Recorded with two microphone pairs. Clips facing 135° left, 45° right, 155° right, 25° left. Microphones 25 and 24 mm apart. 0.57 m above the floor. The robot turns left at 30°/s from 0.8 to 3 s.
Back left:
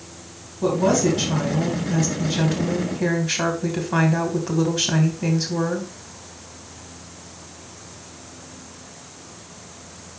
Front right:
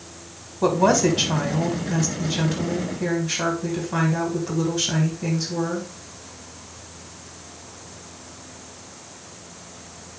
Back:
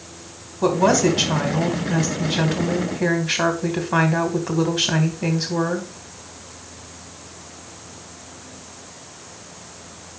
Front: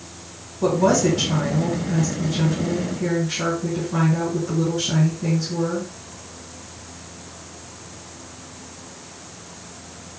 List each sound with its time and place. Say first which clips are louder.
0.6 s a woman speaking: front right 1 dB, back 1 dB; 95° right, 2.5 m; by 5.9 s 160° right, 2.5 m